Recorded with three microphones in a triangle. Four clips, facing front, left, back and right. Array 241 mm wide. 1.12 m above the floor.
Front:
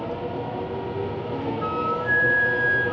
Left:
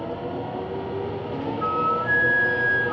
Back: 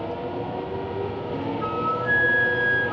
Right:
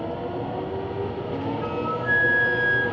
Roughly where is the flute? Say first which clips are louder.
Left 3 dB, even; behind left.